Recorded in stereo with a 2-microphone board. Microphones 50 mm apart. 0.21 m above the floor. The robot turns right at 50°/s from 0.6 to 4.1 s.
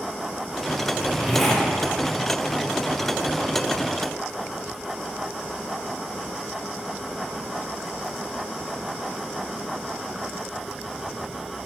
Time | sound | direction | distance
0.9 | a zipper | 20° right | 5.5 m